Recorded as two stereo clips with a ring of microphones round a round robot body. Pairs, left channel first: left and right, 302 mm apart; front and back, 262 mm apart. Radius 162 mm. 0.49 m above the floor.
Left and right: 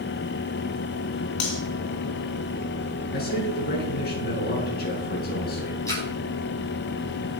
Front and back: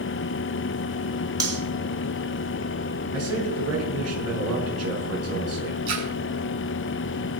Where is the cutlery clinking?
105° left, 3.5 m.